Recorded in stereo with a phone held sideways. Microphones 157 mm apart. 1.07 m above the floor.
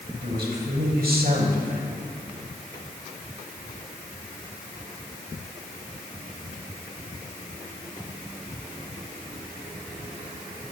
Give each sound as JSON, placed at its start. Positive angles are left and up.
{"t": 0.2, "sound": "a man speaking", "side_deg": -85, "distance_m": 6.5}